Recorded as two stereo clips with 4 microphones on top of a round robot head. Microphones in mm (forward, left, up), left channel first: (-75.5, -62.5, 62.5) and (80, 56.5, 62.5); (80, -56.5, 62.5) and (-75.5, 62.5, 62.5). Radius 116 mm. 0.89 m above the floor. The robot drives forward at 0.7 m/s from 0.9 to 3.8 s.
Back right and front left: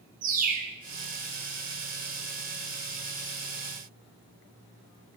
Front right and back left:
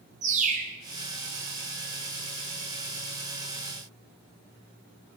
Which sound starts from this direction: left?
A bird, at 0.2 s.